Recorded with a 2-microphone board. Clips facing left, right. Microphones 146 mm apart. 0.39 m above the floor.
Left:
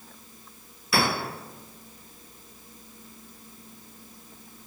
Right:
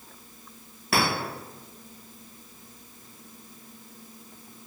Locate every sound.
0.9 s a clink: 65° right (ahead or behind), 1.9 m